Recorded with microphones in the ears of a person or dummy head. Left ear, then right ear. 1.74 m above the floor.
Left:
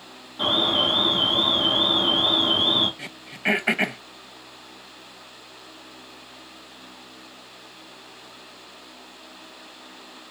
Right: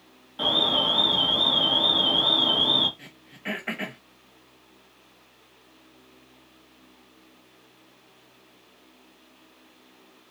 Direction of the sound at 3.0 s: 30° left (ahead or behind).